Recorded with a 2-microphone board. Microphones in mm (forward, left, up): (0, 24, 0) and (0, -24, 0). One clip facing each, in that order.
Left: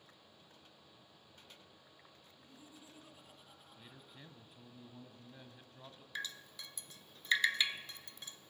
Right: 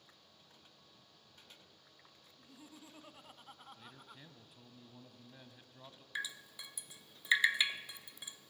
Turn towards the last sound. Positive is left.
turn(degrees=-10)  # may be behind; listen again after turning